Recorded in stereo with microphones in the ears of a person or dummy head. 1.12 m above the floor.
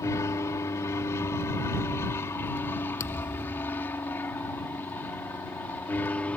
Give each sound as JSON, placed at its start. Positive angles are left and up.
{"t": 0.0, "sound": "an aircraft", "side_deg": 15}
{"t": 3.0, "sound": "a thud", "side_deg": 15}